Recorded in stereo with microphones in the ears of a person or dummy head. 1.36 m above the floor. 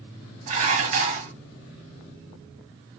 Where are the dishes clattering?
35° right (ahead or behind), 1.4 m.